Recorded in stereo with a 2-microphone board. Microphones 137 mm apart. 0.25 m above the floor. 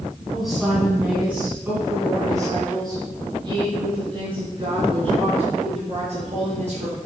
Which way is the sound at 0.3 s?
Centre (ahead or behind).